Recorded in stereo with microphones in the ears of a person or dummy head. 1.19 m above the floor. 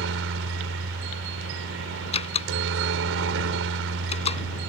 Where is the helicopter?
70° right (ahead or behind).